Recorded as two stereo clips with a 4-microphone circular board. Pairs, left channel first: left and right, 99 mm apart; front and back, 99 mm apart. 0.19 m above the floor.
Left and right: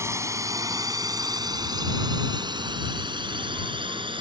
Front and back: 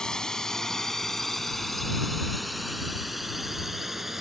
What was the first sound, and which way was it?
A drone, 75° right.